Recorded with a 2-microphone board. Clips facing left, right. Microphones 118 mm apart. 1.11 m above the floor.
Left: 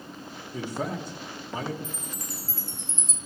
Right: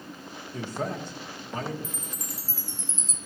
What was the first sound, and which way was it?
A man speaking, 5° left (ahead or behind).